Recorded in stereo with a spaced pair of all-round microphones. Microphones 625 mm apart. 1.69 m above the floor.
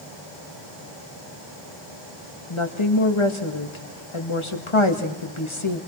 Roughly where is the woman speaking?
Left.